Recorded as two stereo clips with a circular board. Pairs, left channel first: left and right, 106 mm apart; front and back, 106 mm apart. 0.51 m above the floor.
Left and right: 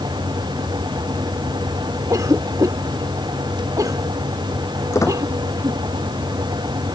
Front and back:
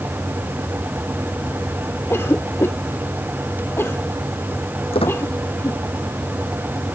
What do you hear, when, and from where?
2.1 s a cough: 55° right
4.9 s a squeak: 30° left